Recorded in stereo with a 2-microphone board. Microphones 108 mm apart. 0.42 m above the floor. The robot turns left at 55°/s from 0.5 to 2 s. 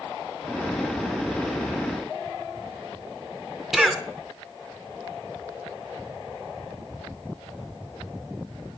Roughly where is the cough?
Centre.